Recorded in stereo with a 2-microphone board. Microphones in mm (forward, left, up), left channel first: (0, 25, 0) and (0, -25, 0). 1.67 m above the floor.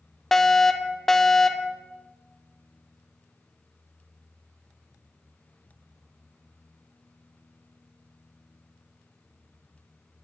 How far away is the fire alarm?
About 0.7 m.